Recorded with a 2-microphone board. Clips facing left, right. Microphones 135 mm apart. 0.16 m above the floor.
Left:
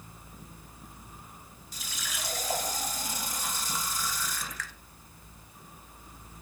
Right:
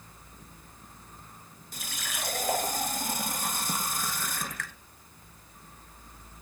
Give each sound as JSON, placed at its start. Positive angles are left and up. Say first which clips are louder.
{"t": 1.7, "sound": "a running tap", "louder": "right 2 dB", "side_deg": -50, "distance_m": 1.4}